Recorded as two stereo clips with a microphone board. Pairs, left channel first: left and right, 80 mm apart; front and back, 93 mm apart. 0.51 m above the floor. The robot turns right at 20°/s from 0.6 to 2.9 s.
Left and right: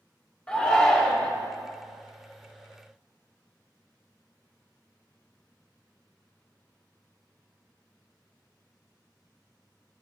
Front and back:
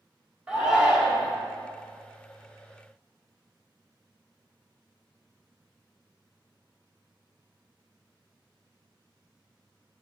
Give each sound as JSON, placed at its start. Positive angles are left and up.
{"t": 0.5, "sound": "a shout", "azimuth_deg": 120, "distance_m": 1.2}